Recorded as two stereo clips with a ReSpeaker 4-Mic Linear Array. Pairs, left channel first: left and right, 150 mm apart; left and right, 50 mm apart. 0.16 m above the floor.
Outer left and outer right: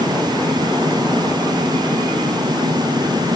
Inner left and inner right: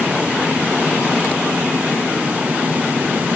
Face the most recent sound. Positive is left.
No sound to turn to.